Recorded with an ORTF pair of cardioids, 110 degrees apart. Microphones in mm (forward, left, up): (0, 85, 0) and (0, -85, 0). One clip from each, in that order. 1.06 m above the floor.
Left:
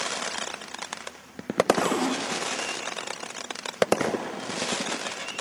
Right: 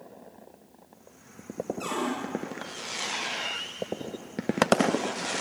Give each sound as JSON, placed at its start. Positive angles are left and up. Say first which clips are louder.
{"t": 1.8, "sound": "a cupboard door", "louder": "left 5 dB", "azimuth_deg": 40, "distance_m": 1.4}